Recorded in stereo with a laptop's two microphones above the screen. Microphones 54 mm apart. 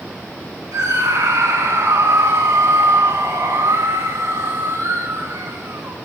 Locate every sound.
0.7 s a scream: 85° right, 9.5 m